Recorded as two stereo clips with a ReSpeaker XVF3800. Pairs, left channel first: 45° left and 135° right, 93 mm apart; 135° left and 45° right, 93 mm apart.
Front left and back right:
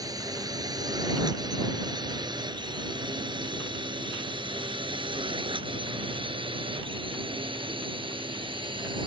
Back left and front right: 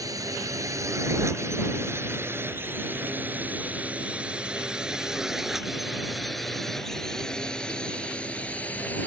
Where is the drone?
90° right; by 9.1 s 155° right.